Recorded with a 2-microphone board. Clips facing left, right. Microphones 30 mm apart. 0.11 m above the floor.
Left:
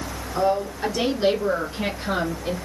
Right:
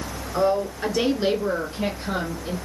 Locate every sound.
0.3 s a woman speaking: 20° right (ahead or behind), 1.4 m; by 2.5 s 30° left (ahead or behind), 1.9 m